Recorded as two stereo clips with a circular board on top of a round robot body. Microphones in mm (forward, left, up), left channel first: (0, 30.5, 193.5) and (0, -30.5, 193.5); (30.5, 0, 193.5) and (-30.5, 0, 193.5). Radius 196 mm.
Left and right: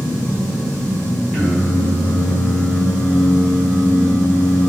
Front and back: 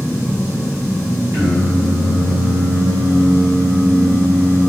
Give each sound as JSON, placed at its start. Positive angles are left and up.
{"t": 1.3, "sound": "singing", "azimuth_deg": 180, "distance_m": 1.7}